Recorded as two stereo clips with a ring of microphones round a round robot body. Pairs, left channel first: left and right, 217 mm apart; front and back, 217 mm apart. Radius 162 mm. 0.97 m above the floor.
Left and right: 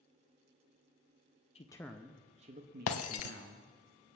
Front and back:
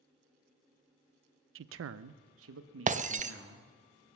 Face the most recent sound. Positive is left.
turn(degrees=120)